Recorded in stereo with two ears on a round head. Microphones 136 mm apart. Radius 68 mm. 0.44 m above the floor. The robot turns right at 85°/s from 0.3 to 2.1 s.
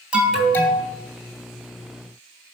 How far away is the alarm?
About 2.5 m.